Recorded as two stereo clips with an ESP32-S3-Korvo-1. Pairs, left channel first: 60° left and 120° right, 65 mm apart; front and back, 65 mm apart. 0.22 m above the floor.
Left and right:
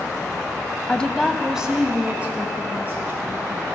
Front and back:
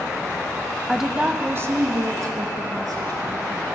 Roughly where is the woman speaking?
Left.